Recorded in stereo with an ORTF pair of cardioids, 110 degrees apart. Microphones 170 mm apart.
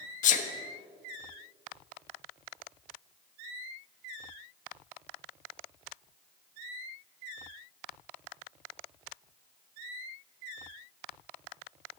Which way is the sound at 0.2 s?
50° left.